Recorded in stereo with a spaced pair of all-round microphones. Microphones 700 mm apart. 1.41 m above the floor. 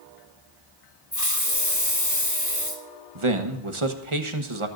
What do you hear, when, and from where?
1.1 s a hiss: 25° left (ahead or behind), 1.6 m
3.1 s a man speaking: 45° right (ahead or behind), 1.3 m